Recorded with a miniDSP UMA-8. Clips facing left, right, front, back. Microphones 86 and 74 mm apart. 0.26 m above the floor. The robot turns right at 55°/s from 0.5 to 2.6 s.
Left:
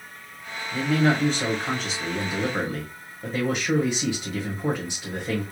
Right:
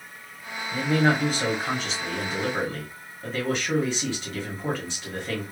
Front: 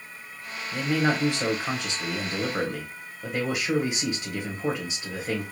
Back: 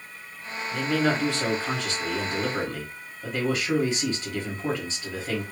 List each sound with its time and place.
0.7 s a man speaking: 60° right, 1.3 m; by 5.4 s 45° left, 1.3 m